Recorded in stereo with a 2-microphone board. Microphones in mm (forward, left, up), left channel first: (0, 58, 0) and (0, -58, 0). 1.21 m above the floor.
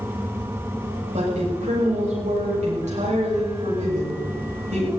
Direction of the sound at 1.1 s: 80° right.